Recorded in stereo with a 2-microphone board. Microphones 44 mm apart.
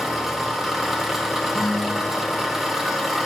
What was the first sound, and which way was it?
An engine running, 10° right (ahead or behind).